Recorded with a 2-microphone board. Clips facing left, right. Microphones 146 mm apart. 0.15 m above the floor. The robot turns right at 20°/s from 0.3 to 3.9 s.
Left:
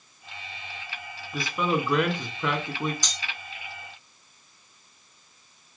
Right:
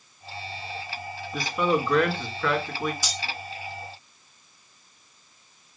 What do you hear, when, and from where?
1.3 s a man speaking: straight ahead, 1.9 m; by 2.9 s 35° left, 1.9 m
3.0 s cutlery clinking: 10° right (ahead or behind), 0.9 m